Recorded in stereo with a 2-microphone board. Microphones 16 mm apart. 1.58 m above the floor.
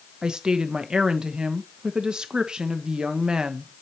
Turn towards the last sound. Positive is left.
turn(degrees=-60)  # may be behind; listen again after turning